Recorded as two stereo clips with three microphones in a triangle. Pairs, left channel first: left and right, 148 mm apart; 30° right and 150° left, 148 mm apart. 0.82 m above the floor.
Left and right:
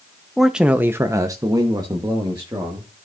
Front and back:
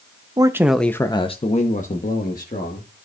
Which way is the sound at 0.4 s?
Straight behind.